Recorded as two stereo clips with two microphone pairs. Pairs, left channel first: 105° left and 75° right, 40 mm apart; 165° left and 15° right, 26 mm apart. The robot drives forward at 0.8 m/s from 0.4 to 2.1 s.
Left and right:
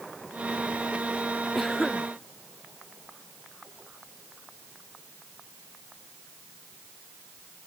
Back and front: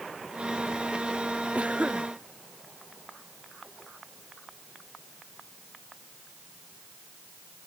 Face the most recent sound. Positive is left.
turn(degrees=20)